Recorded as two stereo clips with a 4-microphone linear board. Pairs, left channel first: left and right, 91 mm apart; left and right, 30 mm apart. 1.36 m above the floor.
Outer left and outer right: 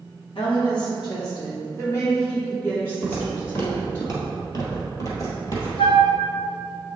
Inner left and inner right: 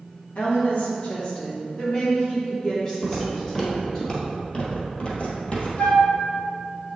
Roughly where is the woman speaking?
Left.